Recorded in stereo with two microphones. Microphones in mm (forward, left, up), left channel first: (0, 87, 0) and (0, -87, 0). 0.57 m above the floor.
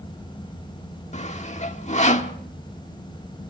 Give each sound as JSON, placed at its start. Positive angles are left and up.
{"t": 1.1, "sound": "sawing", "side_deg": 40, "distance_m": 1.3}